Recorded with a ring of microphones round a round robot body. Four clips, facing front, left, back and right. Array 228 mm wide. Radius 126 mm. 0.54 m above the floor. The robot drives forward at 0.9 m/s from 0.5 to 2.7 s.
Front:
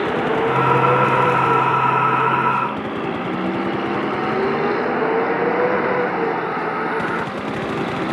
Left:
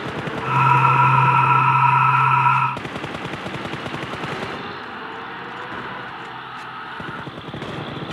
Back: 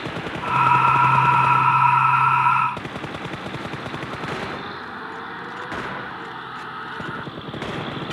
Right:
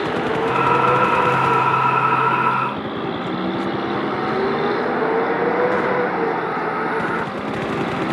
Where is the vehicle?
30° right; by 8.1 s 45° right.